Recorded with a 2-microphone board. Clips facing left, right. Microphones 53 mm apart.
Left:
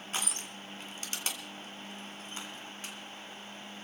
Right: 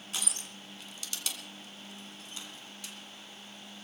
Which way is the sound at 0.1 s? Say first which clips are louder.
Left 3 dB; 40° left (ahead or behind).